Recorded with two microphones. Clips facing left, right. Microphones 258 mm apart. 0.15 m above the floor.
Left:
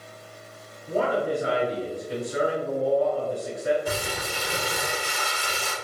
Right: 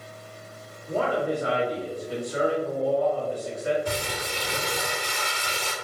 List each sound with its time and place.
0.9 s a man speaking: 35° left (ahead or behind), 2.0 m
3.9 s crumpling: 5° left (ahead or behind), 1.3 m